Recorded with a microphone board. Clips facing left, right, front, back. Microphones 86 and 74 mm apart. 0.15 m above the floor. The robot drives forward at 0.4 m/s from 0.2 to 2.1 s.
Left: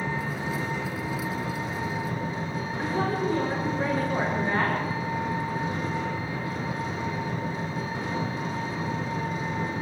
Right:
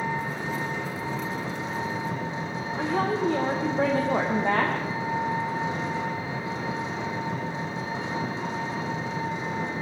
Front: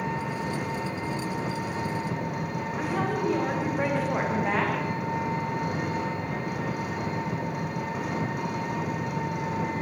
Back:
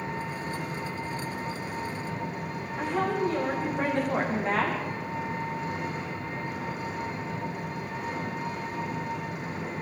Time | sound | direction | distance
0.0 | an engine running | 20° right | 5.5 m
2.8 | a woman speaking | 85° right | 7 m